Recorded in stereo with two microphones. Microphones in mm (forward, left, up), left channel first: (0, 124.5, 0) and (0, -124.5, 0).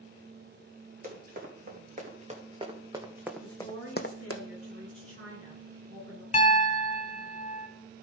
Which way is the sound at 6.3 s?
30° left (ahead or behind).